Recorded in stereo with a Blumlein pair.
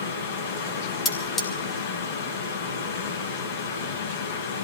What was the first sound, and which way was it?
A fan, 50° left.